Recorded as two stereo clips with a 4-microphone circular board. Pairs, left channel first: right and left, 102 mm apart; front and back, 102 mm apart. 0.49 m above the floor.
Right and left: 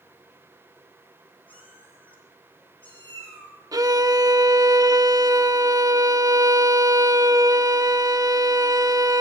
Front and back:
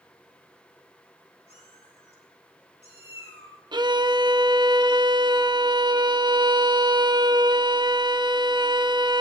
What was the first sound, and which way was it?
A cat meowing, 15° right.